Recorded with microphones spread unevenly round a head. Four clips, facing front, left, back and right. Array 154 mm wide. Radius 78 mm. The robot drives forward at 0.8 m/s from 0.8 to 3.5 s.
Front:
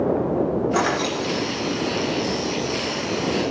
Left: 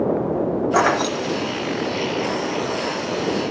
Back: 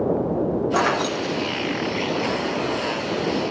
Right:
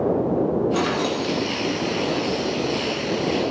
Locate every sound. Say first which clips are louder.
0.7 s keys jangling: left 4 dB, back 1 dB; 85° left, 0.5 m; by 2.1 s 155° left, 1.1 m